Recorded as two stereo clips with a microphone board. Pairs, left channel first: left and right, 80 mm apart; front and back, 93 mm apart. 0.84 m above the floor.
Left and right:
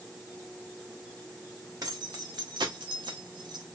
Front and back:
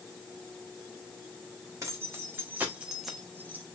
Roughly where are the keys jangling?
Behind right.